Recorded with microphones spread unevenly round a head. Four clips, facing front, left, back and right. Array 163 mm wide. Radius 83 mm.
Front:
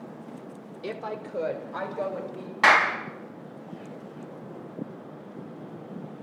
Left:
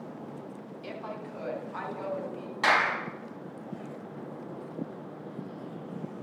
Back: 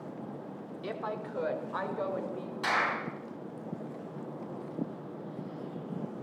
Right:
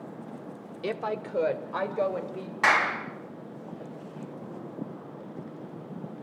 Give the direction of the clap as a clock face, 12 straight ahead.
12 o'clock.